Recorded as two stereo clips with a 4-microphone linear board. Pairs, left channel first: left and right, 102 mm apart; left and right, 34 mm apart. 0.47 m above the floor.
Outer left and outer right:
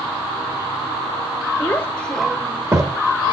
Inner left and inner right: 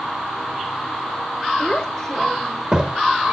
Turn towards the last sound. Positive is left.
turn(degrees=-50)  # may be behind; listen again after turning